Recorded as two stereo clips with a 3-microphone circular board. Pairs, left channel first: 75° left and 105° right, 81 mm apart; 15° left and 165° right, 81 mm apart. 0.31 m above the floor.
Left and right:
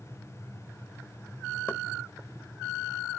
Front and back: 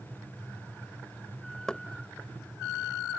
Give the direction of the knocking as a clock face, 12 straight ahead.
9 o'clock.